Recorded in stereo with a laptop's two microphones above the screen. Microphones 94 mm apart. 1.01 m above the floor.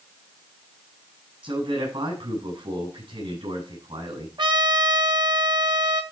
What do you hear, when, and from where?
1.4 s a man speaking: 70° right (ahead or behind), 8 m
4.4 s a trumpet: 55° right (ahead or behind), 1.4 m